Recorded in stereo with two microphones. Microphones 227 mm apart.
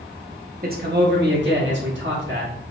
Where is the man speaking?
45° right (ahead or behind), 0.8 m; by 2.5 s 55° right (ahead or behind), 1.6 m.